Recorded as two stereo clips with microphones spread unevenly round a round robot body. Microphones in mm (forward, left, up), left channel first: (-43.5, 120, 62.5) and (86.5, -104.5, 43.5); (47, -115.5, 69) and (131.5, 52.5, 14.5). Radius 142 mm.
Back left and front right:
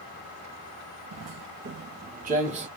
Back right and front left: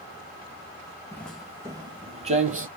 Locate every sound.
1.1 s footsteps: 60° right, 0.6 m; by 2.7 s 10° left, 1.0 m